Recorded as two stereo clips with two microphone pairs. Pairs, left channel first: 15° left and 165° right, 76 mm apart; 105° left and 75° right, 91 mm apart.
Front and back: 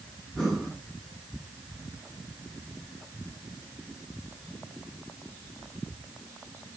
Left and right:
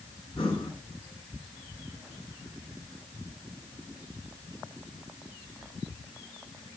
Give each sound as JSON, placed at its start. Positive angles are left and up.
{"t": 0.4, "sound": "breathing", "azimuth_deg": 105, "distance_m": 5.0}